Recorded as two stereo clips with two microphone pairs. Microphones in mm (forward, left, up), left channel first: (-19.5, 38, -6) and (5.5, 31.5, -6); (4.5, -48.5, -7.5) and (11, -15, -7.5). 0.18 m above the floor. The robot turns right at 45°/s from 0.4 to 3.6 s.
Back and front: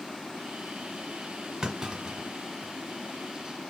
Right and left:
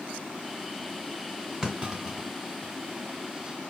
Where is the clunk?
25° left, 1.9 m; by 2.7 s 75° left, 1.9 m.